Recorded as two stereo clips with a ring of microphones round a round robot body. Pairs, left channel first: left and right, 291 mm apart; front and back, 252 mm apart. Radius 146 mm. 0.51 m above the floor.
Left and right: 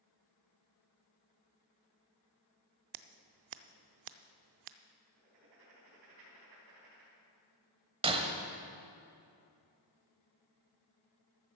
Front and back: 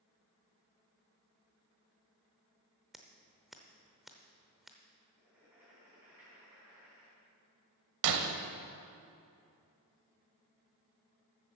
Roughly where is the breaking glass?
Behind.